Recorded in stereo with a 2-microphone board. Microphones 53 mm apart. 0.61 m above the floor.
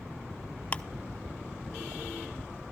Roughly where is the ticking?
Left.